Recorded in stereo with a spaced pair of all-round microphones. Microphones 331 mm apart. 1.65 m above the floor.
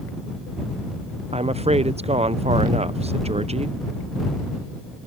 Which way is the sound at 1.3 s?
20° right (ahead or behind).